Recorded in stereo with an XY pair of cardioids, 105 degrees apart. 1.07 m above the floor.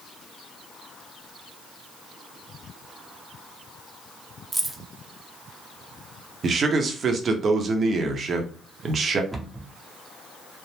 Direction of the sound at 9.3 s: 15° right.